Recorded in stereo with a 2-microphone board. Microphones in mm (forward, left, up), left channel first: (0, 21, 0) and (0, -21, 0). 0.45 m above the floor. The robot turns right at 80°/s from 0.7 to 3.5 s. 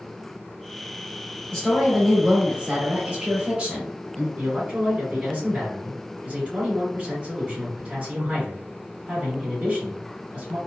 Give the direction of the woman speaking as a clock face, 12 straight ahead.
7 o'clock.